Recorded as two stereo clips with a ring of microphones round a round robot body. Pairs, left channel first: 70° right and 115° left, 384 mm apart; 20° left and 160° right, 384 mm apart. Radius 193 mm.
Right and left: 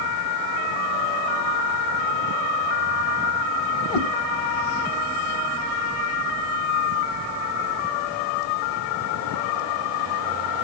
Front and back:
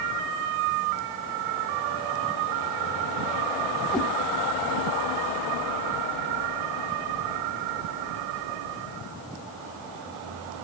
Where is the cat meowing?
65° right, 1.8 m.